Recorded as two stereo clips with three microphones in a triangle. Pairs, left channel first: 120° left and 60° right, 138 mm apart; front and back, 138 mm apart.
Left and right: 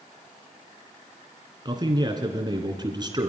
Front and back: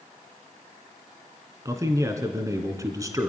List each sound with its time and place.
1.6 s a man speaking: 115° right, 2.5 m